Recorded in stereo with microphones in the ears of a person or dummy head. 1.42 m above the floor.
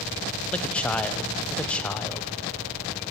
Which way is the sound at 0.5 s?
5° left (ahead or behind).